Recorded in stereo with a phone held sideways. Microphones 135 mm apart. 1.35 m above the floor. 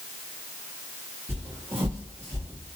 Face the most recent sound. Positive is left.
turn(degrees=-20)  # may be behind; listen again after turning